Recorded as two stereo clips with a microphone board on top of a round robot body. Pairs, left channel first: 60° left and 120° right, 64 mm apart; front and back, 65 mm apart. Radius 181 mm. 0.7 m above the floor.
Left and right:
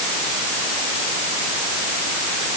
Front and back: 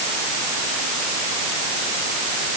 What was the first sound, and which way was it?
Only background noise.